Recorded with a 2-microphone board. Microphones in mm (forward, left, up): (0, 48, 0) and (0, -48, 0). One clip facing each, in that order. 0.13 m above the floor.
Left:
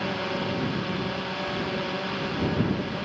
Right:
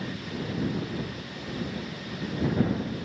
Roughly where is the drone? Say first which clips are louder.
Left 6 dB; left.